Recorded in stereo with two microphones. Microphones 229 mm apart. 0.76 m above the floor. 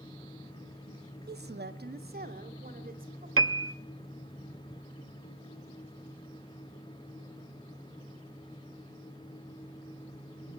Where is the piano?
70° right (ahead or behind), 0.7 m.